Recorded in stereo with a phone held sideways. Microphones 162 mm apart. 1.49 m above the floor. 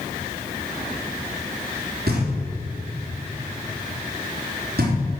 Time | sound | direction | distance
2.1 | knocking | 75° right (ahead or behind) | 4 m